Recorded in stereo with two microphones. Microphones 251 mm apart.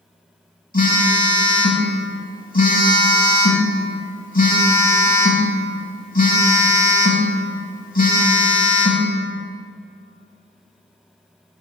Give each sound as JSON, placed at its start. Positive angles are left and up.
{"t": 0.7, "sound": "a phone buzzing", "side_deg": 35, "distance_m": 0.6}